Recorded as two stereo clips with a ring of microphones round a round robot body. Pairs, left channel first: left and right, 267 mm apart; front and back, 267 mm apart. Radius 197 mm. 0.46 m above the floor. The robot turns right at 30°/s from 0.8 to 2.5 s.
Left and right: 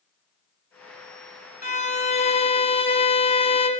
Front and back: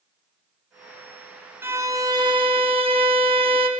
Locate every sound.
1.6 s a violin: 110° left, 0.9 m; by 3.7 s 135° left, 0.9 m